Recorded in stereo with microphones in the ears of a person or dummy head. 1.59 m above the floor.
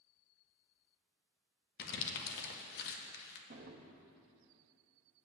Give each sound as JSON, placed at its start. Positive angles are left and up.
{"t": 1.8, "sound": "crumpling", "side_deg": 60, "distance_m": 1.5}
{"t": 3.5, "sound": "a drawer", "side_deg": -35, "distance_m": 1.2}